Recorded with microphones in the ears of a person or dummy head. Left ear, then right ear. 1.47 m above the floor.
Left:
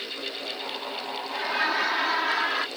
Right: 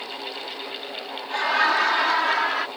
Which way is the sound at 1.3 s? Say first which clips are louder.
Right 6 dB; 45° right (ahead or behind).